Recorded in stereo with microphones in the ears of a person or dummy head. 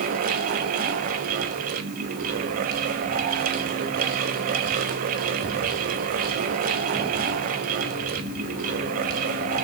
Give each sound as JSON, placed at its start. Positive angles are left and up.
{"t": 0.0, "sound": "a fan", "side_deg": -50, "distance_m": 1.0}